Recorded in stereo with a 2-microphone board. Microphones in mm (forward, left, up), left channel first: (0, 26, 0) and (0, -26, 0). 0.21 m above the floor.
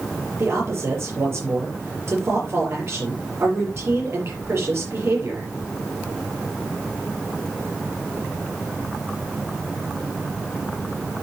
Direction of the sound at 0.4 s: 50° right (ahead or behind).